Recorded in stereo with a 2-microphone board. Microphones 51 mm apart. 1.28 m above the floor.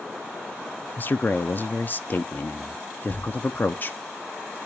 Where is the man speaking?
40° left (ahead or behind), 0.6 m.